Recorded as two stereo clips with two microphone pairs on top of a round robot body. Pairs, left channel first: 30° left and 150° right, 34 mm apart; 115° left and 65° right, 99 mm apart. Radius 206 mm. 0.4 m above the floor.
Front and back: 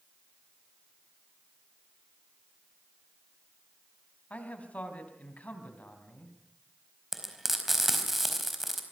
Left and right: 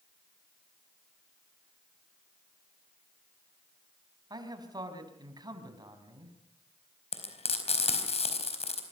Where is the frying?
130° left, 4.5 m.